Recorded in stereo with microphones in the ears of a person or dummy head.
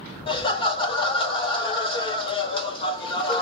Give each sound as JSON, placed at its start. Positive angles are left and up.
{"t": 0.3, "sound": "laughter", "side_deg": 30, "distance_m": 0.8}